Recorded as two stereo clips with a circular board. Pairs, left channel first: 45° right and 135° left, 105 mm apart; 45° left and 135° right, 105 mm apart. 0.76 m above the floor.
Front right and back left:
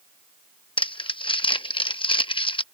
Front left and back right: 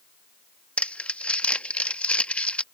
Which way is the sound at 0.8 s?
30° right.